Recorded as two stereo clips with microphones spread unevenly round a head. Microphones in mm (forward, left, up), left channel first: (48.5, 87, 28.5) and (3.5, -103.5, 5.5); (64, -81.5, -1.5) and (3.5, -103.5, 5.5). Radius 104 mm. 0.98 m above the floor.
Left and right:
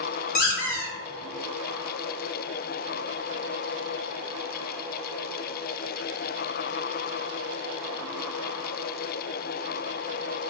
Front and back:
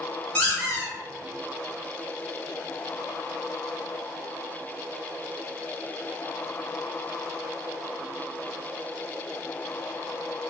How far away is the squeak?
About 0.9 m.